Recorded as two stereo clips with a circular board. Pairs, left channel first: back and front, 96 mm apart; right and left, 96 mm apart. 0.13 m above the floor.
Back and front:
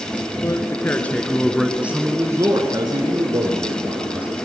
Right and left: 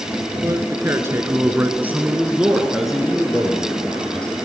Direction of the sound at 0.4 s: 135° left.